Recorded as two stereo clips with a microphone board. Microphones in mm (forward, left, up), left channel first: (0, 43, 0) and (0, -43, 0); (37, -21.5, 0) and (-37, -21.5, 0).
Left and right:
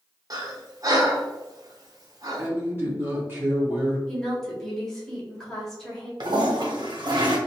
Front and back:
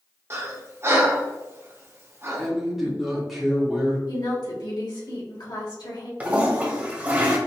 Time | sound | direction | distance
0.3 | breathing | 130° right | 0.8 m
2.4 | a woman speaking | 100° right | 1.3 m
4.1 | a woman speaking | 5° left | 2.0 m
6.2 | a toilet flushing | 115° right | 1.1 m